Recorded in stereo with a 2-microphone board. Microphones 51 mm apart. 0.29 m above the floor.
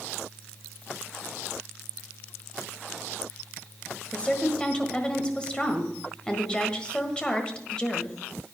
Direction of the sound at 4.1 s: 20° left (ahead or behind).